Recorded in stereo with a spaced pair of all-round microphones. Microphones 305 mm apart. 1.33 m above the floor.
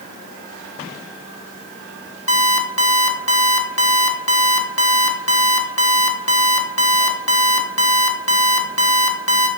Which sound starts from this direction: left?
An alarm clock, at 2.3 s.